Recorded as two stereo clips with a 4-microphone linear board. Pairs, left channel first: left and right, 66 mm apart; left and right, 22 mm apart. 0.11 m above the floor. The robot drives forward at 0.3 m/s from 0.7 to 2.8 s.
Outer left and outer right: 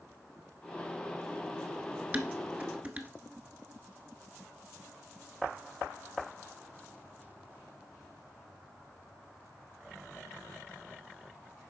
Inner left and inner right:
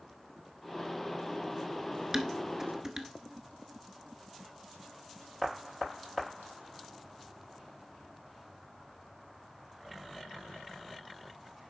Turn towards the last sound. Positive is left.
turn(degrees=-25)  # may be behind; listen again after turning